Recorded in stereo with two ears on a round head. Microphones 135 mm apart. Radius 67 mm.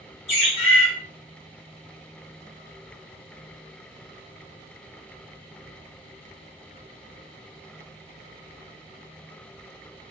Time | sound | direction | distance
0.3 | a bird | 45° left (ahead or behind) | 1.2 m